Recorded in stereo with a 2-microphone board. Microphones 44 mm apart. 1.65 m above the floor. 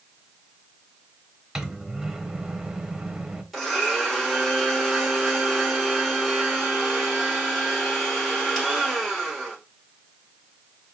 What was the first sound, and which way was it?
A microwave, 15° right (ahead or behind).